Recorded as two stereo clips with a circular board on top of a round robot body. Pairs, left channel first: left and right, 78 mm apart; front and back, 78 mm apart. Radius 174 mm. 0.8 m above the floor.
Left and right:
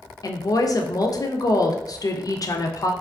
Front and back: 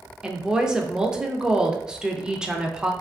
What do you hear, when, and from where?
0.2 s a woman speaking: 100° left, 0.6 m